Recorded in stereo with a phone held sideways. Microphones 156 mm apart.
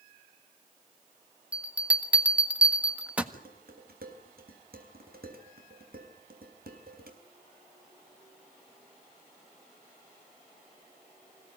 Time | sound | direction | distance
1.5 | a bell | 10° right (ahead or behind) | 1.6 m
3.3 | dishes clattering | 75° right (ahead or behind) | 4 m